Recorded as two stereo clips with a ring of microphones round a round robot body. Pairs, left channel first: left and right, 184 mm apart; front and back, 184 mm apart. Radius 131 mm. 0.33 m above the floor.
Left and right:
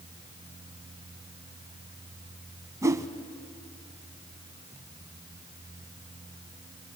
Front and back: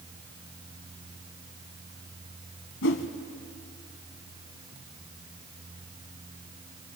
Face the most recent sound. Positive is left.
turn(degrees=-15)